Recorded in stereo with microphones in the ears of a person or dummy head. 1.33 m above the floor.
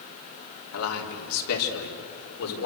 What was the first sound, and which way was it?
A man speaking, 80° left.